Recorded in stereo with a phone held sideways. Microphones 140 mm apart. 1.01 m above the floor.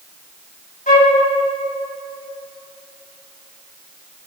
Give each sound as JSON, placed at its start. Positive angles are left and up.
{"t": 0.9, "sound": "a flute", "side_deg": 80, "distance_m": 2.5}